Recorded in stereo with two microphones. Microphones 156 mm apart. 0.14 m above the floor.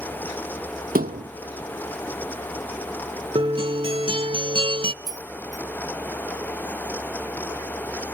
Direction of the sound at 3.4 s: 35° right (ahead or behind).